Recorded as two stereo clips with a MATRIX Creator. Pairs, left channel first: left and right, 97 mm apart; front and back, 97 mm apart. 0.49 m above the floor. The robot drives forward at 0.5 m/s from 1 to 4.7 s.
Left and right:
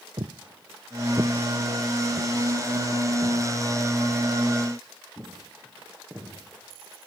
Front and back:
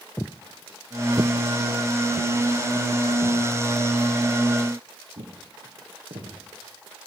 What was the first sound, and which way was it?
Footsteps, 65° right.